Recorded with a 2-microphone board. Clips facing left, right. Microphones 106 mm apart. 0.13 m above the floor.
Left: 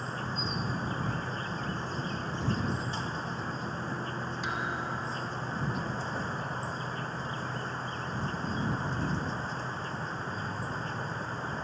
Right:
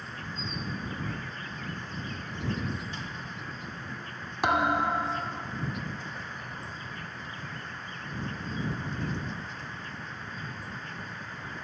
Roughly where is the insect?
Left.